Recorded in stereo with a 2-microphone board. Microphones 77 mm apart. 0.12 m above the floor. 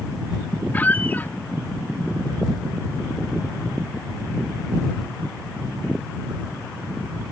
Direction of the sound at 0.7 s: 20° left (ahead or behind).